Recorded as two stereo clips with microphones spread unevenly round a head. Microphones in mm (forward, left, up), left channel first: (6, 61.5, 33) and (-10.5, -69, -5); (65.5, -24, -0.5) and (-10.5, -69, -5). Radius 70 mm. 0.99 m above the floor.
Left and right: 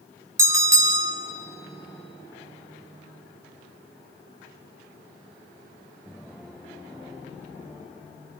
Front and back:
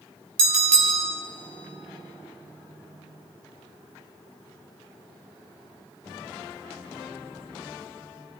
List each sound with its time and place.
0.4 s a bell: 165° right, 2 m